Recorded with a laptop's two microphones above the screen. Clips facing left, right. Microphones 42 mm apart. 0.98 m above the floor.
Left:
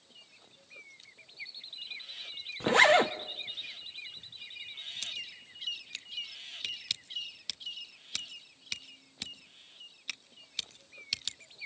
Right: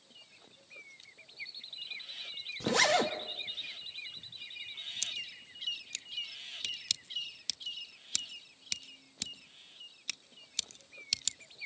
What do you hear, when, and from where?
2.6 s a zipper: 30° left (ahead or behind), 0.8 m
5.0 s scissors: 10° left (ahead or behind), 1.1 m